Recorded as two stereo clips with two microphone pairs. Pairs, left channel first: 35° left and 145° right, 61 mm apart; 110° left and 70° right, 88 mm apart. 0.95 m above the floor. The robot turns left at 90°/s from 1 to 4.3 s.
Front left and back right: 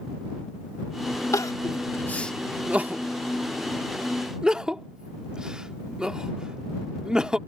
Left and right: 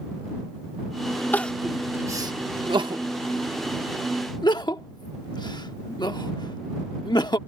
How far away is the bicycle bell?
I don't hear a bicycle bell.